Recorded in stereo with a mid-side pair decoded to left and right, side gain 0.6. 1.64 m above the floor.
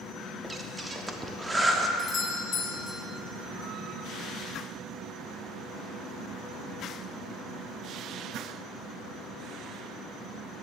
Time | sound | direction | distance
0.4 | breathing | 15° right | 0.9 m
2.0 | a doorbell | 35° left | 1.4 m